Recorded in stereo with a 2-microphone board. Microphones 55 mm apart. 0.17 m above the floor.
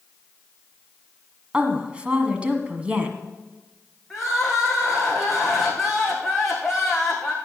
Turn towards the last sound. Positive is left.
turn(degrees=0)  # may be behind; listen again after turning